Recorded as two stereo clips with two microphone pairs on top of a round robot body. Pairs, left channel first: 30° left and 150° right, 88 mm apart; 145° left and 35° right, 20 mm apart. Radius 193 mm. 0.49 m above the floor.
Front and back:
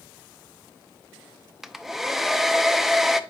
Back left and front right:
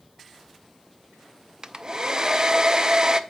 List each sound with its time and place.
1.6 s a hair dryer: 60° right, 0.7 m